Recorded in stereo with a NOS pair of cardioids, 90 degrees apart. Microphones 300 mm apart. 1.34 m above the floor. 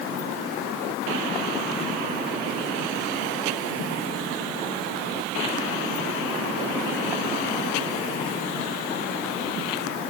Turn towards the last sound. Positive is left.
No sound to turn to.